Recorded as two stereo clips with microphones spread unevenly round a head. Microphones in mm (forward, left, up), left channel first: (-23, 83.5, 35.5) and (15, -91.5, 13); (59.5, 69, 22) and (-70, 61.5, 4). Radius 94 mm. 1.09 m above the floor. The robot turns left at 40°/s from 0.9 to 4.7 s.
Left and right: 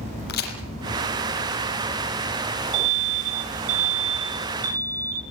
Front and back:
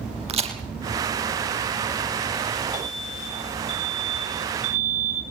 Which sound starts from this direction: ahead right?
An alarm, at 2.7 s.